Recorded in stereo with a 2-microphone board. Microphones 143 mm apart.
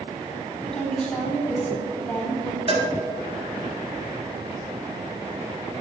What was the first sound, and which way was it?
A woman speaking, 5° left (ahead or behind).